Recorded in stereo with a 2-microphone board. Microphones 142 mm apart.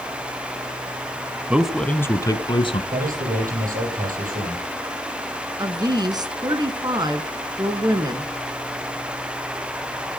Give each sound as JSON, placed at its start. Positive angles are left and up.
{"t": 1.5, "sound": "a man speaking", "side_deg": -10, "distance_m": 1.0}
{"t": 2.9, "sound": "a man speaking", "side_deg": -75, "distance_m": 6.5}
{"t": 5.6, "sound": "a woman speaking", "side_deg": -30, "distance_m": 1.8}